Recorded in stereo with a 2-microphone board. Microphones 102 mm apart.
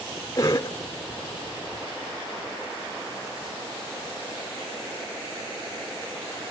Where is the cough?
35° left (ahead or behind), 1.0 m.